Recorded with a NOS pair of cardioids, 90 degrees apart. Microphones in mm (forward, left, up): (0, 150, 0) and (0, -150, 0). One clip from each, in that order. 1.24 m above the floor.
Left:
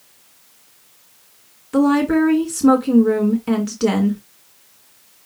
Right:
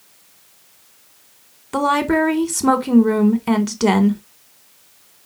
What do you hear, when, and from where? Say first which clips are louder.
1.7 s a woman speaking: even; 30° right, 1.4 m